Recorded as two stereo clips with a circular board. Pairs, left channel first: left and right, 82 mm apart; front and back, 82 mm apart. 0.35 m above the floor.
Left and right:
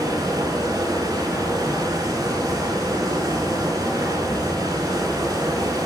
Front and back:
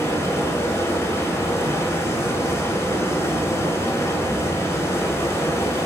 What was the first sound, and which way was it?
Running water, 55° right.